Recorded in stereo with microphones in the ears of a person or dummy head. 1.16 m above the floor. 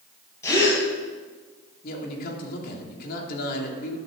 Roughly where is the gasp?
Centre.